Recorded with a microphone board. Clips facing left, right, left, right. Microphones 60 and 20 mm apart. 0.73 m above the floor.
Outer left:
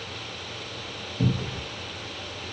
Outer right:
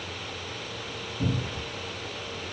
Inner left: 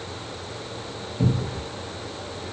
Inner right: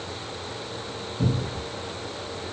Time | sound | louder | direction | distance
1.2 | a cupboard door | outer left 3 dB, inner left 2 dB | 40° left (ahead or behind) | 2.5 m